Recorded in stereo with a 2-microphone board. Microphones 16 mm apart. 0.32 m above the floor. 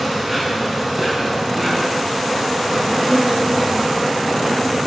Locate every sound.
0.0 s an insect: 20° right (ahead or behind), 4.5 m